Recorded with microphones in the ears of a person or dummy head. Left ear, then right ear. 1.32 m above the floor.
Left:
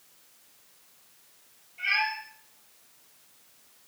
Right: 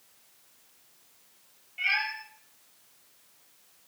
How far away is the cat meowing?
About 7 m.